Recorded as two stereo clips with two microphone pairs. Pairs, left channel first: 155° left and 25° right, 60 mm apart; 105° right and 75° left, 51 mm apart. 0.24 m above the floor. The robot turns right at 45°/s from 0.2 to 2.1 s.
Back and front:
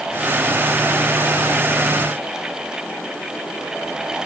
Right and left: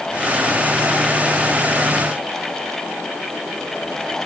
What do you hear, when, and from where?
Only background noise.